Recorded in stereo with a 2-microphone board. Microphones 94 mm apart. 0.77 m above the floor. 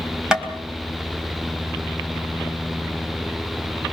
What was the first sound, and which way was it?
Tapping, 10° right (ahead or behind).